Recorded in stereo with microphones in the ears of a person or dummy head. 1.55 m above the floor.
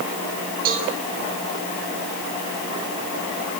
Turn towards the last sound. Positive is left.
turn(degrees=-50)  # may be behind; listen again after turning